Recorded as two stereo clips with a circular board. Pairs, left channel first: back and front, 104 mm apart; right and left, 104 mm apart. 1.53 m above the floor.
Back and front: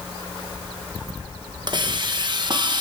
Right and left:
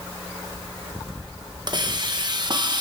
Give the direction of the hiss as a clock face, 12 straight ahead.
11 o'clock.